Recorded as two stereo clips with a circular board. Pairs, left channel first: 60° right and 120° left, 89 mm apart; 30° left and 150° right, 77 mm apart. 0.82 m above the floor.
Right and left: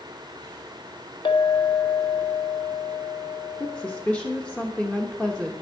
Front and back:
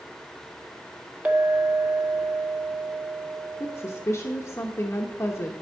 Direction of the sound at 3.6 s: 10° left.